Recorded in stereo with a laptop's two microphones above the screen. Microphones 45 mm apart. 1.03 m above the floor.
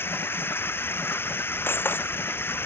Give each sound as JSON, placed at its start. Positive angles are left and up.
{"t": 0.0, "sound": "running water", "side_deg": 55}
{"t": 1.7, "sound": "breaking glass", "side_deg": 55}